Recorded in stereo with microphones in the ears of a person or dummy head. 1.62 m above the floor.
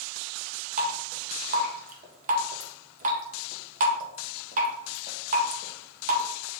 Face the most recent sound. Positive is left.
turn(degrees=-40)  # may be behind; listen again after turning